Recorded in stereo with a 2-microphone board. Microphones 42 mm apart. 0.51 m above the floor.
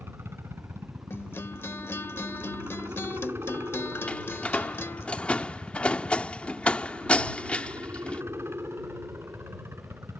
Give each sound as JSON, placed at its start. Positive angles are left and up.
{"t": 0.0, "sound": "a helicopter", "side_deg": -70}
{"t": 1.1, "sound": "a guitar", "side_deg": 70}
{"t": 4.1, "sound": "a door slam", "side_deg": 30}